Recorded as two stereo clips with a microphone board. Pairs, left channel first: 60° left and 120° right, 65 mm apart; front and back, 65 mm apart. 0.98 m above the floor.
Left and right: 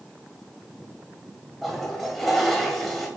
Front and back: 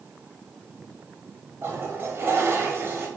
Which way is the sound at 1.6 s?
150° left.